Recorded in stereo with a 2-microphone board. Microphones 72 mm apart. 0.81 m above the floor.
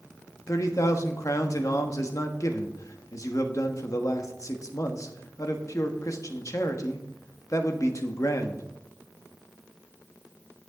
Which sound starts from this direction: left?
A man speaking, at 0.5 s.